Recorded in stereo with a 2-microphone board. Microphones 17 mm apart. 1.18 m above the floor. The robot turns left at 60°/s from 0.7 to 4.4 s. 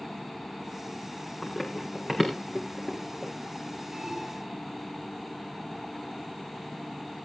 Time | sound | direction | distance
1.4 | running footsteps | 20° left (ahead or behind) | 4 m
3.9 | an alarm | 55° right (ahead or behind) | 3 m